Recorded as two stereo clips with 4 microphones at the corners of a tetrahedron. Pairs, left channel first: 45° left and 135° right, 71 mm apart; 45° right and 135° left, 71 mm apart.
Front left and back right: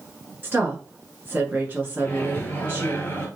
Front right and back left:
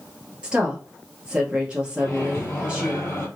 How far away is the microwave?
About 1.3 m.